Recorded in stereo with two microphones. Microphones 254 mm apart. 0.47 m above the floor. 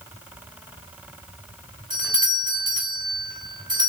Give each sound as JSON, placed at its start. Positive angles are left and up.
{"t": 1.9, "sound": "a doorbell", "side_deg": -20, "distance_m": 1.8}